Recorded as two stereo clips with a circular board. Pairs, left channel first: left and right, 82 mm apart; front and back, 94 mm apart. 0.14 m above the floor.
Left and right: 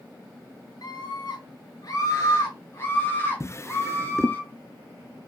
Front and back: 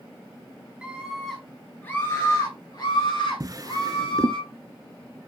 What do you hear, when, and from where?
0.8 s a scream: 100° left, 2 m; by 4.4 s 20° left, 3.5 m
3.4 s a drawer: 135° left, 0.6 m